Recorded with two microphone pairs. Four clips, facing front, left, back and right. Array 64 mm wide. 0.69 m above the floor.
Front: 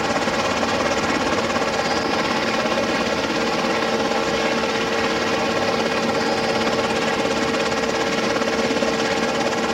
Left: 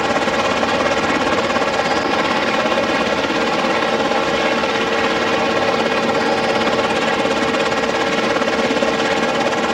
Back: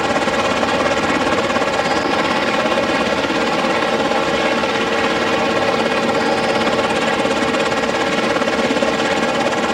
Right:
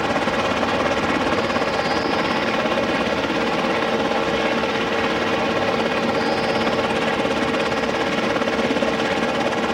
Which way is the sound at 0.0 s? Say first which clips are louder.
Left 3 dB, back 4 dB; 130° left.